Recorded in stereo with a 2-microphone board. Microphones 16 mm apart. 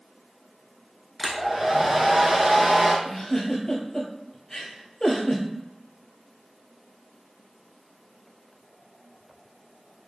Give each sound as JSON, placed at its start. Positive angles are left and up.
{"t": 1.2, "sound": "a hair dryer", "side_deg": -25, "distance_m": 0.7}
{"t": 3.0, "sound": "a giggle", "side_deg": 30, "distance_m": 0.8}